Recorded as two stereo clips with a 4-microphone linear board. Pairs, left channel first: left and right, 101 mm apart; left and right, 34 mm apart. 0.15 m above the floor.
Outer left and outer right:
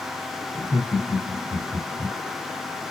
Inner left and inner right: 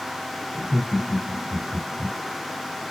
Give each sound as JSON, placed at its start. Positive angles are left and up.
{"t": 0.5, "sound": "laughter", "side_deg": 20, "distance_m": 1.7}